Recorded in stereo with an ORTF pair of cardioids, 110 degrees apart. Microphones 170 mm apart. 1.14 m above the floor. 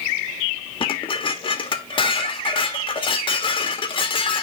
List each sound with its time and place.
0.8 s dishes clattering: 30° left, 1.4 m